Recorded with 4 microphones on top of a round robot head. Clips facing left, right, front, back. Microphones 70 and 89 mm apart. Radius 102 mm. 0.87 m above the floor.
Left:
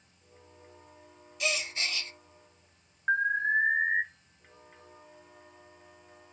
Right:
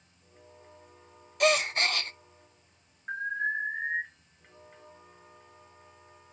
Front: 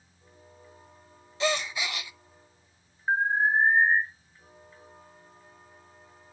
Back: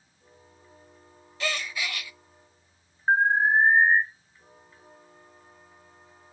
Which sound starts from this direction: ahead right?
A gasp, at 1.4 s.